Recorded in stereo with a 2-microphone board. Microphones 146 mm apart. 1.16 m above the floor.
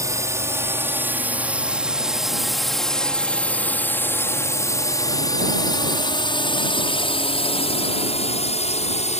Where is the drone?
20° right (ahead or behind); by 9.2 s 50° left (ahead or behind).